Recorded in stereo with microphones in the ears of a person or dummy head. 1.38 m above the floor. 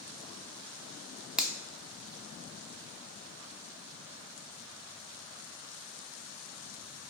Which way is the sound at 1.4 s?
Centre (ahead or behind).